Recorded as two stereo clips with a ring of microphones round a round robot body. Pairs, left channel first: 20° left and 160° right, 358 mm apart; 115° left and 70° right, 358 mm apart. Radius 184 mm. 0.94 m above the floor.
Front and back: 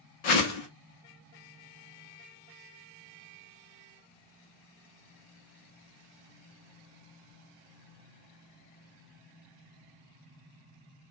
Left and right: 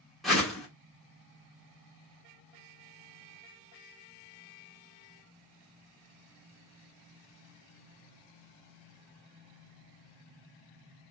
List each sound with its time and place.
0.2 s a whoosh: 25° left, 1.1 m